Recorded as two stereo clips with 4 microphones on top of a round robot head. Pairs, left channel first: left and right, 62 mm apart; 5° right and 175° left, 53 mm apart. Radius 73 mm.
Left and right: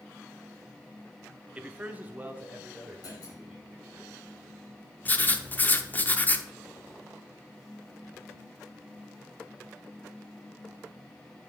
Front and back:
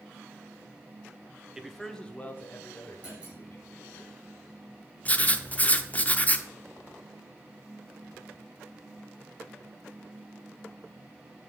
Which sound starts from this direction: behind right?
A man speaking, at 1.6 s.